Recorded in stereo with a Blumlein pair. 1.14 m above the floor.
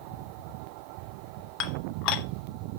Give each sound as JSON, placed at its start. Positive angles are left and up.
{"t": 1.6, "sound": "dishes clattering", "azimuth_deg": 40, "distance_m": 0.8}